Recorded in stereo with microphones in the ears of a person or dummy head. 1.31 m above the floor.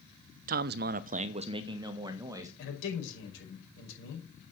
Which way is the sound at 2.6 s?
80° left.